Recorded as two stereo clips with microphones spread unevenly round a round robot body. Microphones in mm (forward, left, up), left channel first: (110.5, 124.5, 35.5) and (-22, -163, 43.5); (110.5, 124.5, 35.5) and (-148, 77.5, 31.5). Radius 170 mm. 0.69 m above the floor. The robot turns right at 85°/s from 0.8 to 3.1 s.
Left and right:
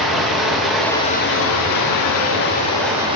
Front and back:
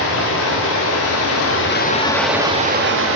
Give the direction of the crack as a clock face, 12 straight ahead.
No crack in this recording.